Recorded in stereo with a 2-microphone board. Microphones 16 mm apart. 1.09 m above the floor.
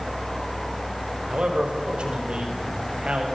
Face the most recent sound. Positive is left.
turn(degrees=-80)